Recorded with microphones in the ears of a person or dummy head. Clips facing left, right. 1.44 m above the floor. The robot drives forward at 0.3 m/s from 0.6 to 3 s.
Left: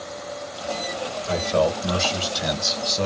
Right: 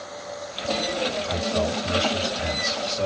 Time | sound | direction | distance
1.3 | a man speaking | 70° left (ahead or behind) | 1.5 m